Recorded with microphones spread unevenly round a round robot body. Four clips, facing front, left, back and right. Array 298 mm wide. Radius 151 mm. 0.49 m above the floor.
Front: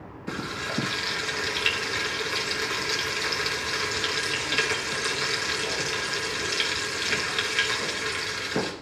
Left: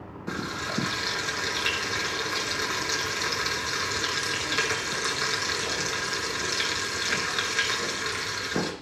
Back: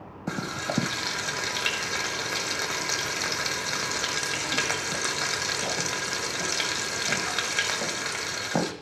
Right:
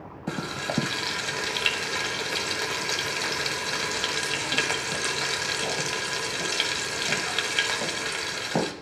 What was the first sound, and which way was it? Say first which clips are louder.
Frying: right 1 dB, back 1 dB; 145° right.